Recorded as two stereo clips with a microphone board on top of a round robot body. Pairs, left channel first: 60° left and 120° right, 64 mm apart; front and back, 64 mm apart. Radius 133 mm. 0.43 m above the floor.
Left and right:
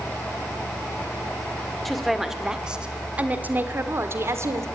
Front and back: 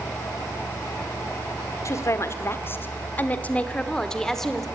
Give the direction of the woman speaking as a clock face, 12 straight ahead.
1 o'clock.